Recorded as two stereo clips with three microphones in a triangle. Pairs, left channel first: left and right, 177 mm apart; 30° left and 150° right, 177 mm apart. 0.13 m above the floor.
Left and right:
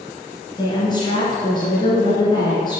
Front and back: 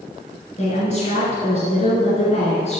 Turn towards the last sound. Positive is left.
turn(degrees=40)